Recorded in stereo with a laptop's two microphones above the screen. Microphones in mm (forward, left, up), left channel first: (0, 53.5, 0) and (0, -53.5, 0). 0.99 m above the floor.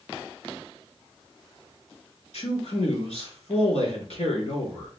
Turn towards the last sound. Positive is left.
turn(degrees=80)